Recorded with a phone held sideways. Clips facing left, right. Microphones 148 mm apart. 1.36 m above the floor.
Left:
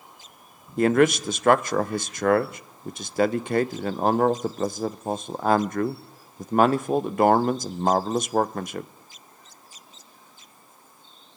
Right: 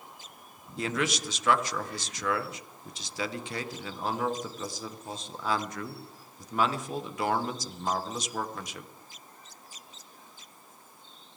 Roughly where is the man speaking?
Left.